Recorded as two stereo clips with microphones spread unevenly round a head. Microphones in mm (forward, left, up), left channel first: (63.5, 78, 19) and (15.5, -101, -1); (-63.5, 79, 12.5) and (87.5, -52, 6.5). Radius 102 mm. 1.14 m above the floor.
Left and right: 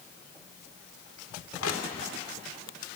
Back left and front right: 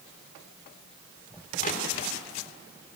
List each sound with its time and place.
1.6 s crushing: 90° left, 3 m